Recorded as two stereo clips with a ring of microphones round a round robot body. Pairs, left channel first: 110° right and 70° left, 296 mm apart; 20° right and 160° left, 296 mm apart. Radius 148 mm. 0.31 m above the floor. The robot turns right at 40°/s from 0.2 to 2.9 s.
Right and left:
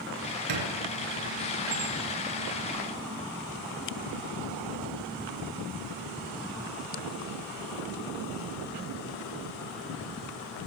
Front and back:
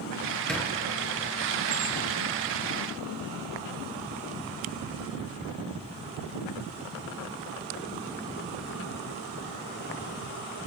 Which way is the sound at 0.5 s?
65° left.